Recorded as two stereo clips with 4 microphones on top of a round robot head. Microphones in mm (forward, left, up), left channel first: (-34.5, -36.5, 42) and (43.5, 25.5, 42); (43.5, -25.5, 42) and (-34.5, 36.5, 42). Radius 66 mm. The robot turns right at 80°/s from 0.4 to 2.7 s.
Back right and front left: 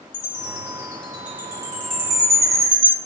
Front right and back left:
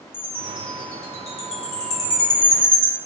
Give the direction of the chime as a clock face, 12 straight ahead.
4 o'clock.